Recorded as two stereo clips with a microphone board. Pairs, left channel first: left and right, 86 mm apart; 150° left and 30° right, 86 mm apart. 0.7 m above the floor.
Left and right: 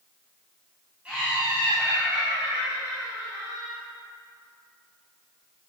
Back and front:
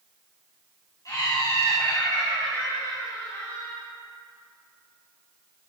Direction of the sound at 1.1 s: 165° right.